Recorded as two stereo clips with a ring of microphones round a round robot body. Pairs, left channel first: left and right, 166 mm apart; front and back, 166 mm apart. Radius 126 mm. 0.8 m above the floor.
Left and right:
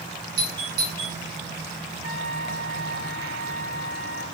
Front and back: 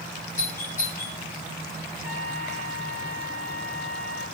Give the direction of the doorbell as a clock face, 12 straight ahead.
3 o'clock.